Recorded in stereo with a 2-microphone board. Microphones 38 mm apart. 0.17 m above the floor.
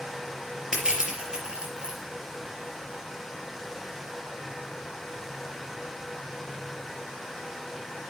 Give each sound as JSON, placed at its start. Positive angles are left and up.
{"t": 0.7, "sound": "crushing", "side_deg": -20, "distance_m": 4.5}